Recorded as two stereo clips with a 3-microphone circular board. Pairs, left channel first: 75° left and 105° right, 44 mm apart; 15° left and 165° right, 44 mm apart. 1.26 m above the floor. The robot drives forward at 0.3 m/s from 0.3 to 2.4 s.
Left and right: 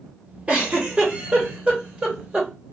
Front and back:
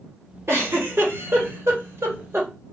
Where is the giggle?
160° right, 2.0 m; by 2.5 s 165° right, 2.5 m.